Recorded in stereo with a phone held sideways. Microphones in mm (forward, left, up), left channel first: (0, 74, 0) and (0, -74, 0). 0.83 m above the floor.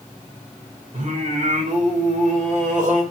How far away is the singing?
About 1.9 m.